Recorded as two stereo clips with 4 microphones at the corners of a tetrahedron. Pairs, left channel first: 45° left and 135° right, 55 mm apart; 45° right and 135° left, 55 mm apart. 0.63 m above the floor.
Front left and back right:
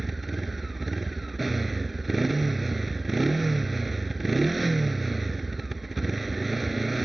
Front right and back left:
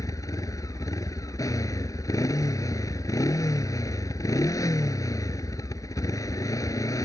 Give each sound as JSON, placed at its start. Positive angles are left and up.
{"t": 0.0, "sound": "a motorcycle", "azimuth_deg": -50}